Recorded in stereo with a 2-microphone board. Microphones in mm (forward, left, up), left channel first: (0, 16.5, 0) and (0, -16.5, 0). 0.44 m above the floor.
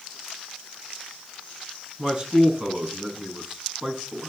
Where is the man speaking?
20° right (ahead or behind), 4.5 m.